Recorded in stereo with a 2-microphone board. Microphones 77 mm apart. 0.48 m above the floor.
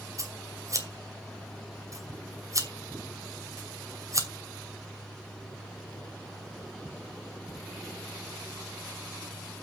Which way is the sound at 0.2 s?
40° right (ahead or behind).